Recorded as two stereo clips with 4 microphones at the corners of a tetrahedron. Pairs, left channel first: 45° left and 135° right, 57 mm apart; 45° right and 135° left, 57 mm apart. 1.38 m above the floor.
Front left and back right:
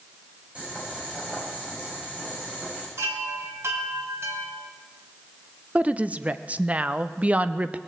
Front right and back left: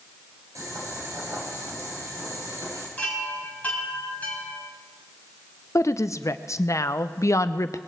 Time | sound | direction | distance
0.6 | boiling | 155° left | 6.5 m
3.0 | a chime | 110° right | 3.5 m
5.8 | a woman speaking | 70° right | 0.7 m